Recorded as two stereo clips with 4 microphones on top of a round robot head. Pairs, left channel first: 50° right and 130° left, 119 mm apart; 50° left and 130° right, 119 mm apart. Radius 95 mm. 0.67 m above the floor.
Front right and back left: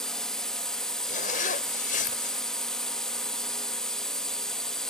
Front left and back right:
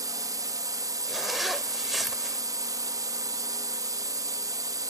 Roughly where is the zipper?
Ahead right.